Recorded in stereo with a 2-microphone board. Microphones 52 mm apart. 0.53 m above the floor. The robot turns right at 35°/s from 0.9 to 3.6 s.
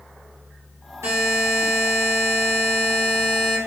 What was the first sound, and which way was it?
A buzzer, 105° right.